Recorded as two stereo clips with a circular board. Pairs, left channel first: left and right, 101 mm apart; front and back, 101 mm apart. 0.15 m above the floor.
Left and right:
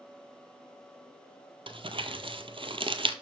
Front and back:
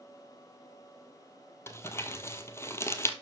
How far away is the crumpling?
About 0.8 m.